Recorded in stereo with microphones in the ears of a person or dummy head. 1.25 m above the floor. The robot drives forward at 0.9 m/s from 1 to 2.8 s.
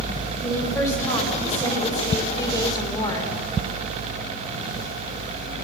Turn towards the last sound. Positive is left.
turn(degrees=15)  # may be behind; listen again after turning